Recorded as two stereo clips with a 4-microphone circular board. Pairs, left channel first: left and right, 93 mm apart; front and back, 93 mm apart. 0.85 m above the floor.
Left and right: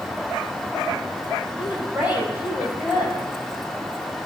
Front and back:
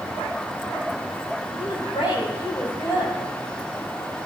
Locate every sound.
1.6 s a woman speaking: 20° right, 5.5 m